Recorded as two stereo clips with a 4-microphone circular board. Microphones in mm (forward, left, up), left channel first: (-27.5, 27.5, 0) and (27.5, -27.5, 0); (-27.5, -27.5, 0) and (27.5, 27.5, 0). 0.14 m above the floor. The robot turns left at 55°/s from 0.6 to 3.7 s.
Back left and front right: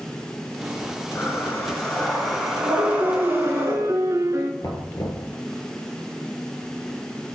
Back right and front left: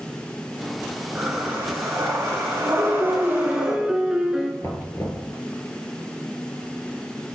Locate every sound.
1.1 s breathing: 110° left, 1.6 m; by 3.8 s 30° right, 1.6 m
2.8 s a piano: 15° left, 0.7 m; by 4.5 s 35° right, 0.7 m
4.6 s knocking: 175° left, 1.7 m